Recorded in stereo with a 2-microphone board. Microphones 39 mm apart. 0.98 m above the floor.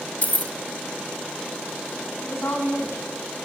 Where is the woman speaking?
75° left (ahead or behind), 8 m.